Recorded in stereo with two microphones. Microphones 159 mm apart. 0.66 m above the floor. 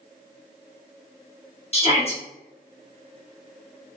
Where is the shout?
40° left (ahead or behind), 1.3 m.